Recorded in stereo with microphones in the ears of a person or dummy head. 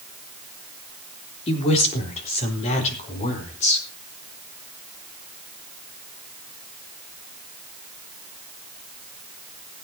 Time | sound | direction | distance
1.5 | a woman speaking | 35° left (ahead or behind) | 3.5 m